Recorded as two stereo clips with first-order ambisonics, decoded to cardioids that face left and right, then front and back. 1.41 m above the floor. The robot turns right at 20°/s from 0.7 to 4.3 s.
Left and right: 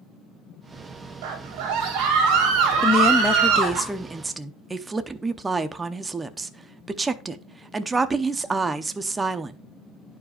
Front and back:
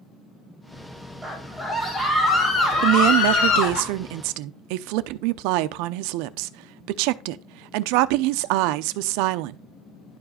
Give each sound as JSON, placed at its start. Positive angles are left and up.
{"t": 1.2, "sound": "a scream", "azimuth_deg": -95, "distance_m": 2.5}
{"t": 2.8, "sound": "a woman speaking", "azimuth_deg": 160, "distance_m": 0.7}